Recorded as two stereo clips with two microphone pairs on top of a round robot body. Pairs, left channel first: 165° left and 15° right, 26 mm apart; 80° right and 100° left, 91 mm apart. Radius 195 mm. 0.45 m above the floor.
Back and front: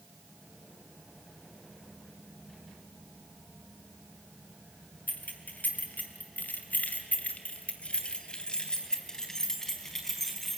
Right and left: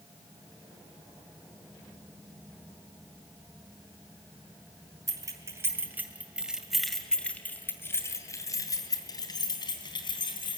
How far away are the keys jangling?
About 3 m.